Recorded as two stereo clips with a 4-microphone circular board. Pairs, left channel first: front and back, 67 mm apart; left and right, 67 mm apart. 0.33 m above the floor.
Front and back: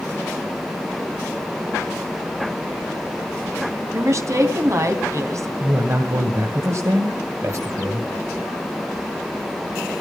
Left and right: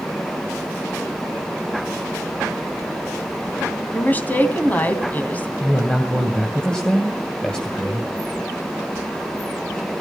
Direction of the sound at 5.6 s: 165° left.